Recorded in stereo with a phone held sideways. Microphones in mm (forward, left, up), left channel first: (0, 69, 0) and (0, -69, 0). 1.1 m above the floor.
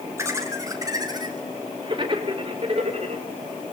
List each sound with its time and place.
0.2 s laughter: 20° right (ahead or behind), 4.5 m; by 3.2 s 50° right (ahead or behind), 3.5 m